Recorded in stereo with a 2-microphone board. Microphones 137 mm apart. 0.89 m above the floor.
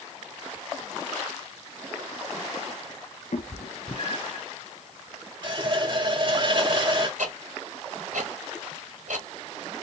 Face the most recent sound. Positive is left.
turn(degrees=-85)